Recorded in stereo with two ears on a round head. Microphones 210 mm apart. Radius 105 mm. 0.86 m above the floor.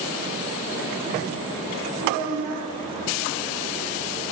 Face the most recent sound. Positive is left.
turn(degrees=-75)  # may be behind; listen again after turning